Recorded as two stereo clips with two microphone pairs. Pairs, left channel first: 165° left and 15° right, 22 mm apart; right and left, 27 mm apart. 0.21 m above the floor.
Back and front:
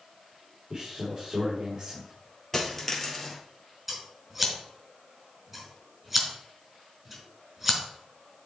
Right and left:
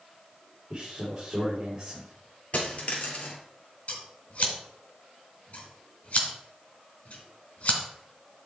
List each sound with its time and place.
0.7 s a man speaking: 30° left, 4 m
2.5 s a dropped coin: 130° right, 2.5 m
3.9 s scissors: 105° right, 2 m